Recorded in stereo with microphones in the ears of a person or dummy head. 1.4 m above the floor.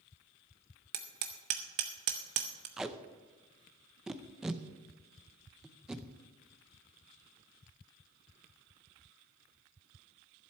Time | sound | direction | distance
0.9 | hammering | 35° right (ahead or behind) | 0.7 m
2.8 | tape being pulled | 10° right (ahead or behind) | 0.6 m